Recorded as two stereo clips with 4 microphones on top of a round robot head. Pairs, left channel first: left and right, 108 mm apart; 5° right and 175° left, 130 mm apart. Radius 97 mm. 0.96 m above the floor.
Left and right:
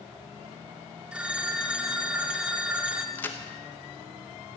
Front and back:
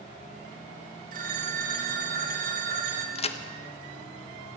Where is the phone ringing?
170° right, 1.8 m.